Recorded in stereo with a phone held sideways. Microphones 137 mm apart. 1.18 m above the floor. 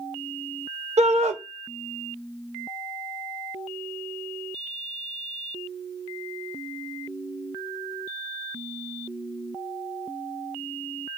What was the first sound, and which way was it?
A shout, 55° right (ahead or behind).